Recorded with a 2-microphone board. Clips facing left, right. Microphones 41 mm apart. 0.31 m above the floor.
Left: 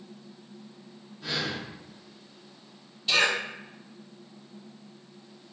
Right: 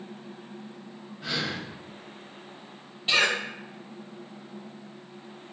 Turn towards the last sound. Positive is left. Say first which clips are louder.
# right 1 dB
turn(degrees=-35)  # may be behind; listen again after turning